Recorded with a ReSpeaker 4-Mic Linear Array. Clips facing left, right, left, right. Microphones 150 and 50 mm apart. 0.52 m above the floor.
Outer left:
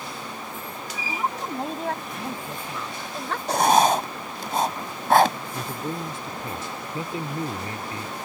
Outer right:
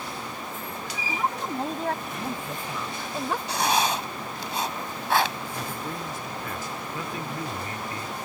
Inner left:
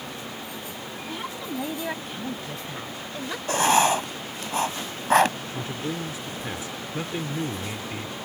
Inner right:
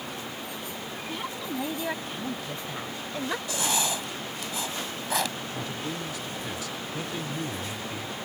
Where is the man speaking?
30° left (ahead or behind).